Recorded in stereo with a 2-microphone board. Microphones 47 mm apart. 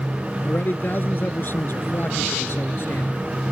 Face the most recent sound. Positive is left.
turn(degrees=60)  # may be behind; listen again after turning